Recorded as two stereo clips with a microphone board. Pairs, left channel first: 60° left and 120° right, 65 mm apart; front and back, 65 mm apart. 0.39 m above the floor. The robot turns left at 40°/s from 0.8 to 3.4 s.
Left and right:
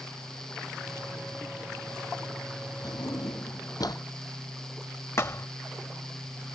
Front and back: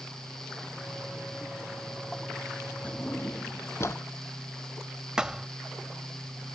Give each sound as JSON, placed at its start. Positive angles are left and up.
{"t": 2.8, "sound": "a drawer", "azimuth_deg": 70}
{"t": 5.2, "sound": "a thud", "azimuth_deg": 105}